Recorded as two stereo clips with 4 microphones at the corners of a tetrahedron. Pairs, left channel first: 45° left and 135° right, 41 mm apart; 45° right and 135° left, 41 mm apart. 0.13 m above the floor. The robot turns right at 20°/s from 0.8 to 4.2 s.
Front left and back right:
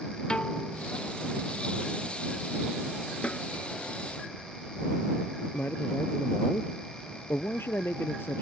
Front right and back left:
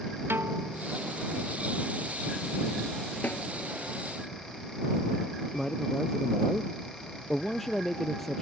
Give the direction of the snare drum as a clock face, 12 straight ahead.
12 o'clock.